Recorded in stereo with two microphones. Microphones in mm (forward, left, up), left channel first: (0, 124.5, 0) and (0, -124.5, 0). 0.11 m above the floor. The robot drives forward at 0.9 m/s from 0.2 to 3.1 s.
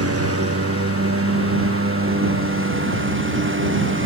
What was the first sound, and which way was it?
A lawn mower, 75° right (ahead or behind).